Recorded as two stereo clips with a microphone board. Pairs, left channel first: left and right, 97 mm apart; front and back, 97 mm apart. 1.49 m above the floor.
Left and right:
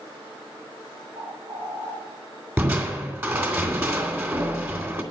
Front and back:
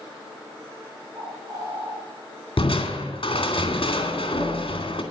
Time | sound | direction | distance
1.1 | a bird | 120° right | 6 m
2.6 | crushing | 25° right | 2.5 m